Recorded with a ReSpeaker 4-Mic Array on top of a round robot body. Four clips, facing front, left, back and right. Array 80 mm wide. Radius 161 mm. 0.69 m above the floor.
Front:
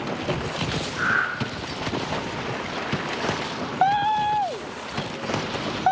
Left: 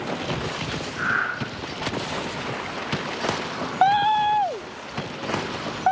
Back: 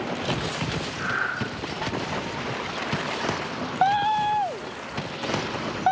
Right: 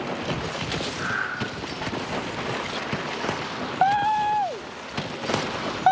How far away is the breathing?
About 3.5 m.